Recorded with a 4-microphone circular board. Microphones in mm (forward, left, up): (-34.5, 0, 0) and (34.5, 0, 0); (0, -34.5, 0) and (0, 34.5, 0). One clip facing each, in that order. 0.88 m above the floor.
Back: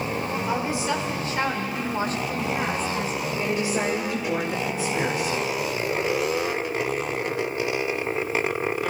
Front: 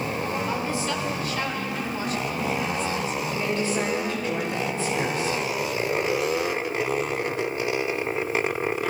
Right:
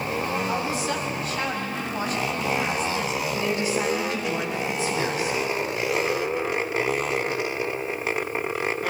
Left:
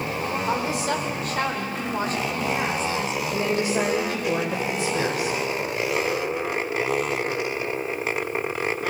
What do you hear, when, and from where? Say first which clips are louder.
0.5 s a woman speaking: back 2 dB, left 2 dB; 105° left, 4 m; by 3.2 s 150° left, 4.5 m
3.3 s a woman speaking: back 1 dB, left 3 dB; 105° left, 3 m